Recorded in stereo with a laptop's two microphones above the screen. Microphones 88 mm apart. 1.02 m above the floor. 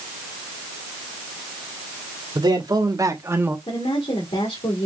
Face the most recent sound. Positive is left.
turn(degrees=70)  # may be behind; listen again after turning